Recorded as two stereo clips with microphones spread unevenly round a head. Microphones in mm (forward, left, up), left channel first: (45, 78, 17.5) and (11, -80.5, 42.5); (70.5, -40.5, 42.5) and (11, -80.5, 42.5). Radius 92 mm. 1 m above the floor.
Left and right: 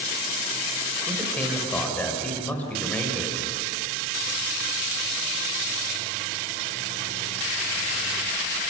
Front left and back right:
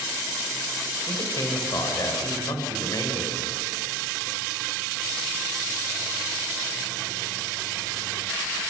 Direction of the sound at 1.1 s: 5° right.